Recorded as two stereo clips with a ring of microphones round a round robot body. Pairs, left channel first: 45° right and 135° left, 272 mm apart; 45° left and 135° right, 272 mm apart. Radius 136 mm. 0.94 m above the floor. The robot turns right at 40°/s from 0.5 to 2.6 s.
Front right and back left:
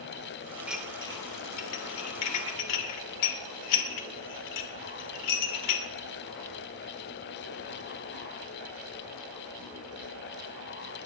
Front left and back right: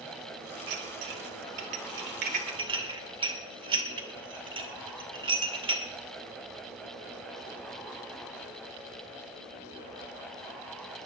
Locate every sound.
0.7 s dishes clattering: 140° right, 2.5 m; by 5.8 s 60° right, 2.5 m